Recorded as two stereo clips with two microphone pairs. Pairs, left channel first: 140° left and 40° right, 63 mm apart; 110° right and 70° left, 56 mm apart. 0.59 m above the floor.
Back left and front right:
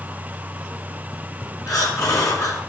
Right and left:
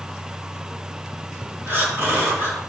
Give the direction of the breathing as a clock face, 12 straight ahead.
8 o'clock.